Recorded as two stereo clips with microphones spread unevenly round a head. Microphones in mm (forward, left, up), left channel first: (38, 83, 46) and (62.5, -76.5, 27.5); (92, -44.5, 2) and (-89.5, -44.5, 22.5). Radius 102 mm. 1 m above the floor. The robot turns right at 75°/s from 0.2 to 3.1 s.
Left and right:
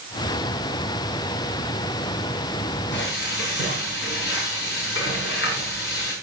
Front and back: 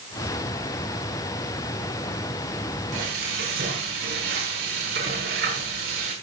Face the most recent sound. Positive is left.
turn(degrees=135)